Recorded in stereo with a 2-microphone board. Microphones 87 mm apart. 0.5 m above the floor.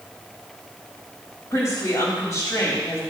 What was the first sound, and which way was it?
A woman speaking, 40° left (ahead or behind).